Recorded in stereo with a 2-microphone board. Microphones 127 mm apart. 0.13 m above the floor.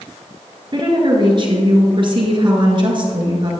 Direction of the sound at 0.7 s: 40° right (ahead or behind).